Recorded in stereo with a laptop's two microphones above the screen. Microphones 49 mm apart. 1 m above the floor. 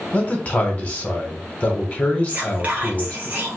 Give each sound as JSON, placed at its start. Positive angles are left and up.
{"t": 0.1, "sound": "a man speaking", "side_deg": 25, "distance_m": 0.9}
{"t": 2.3, "sound": "whispering", "side_deg": -35, "distance_m": 1.0}